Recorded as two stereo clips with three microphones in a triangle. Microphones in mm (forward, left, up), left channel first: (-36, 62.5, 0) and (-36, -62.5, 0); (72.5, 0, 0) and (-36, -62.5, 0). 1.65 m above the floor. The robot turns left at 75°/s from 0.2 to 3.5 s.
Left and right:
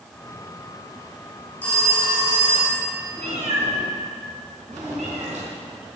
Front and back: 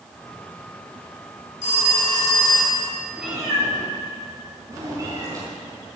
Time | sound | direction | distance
1.6 | a phone ringing | 15° left | 3 m
3.2 | a cat meowing | 65° right | 4 m